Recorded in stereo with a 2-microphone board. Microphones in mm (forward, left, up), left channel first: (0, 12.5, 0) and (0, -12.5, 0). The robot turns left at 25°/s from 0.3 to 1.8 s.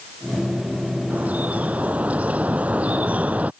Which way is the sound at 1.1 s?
85° right.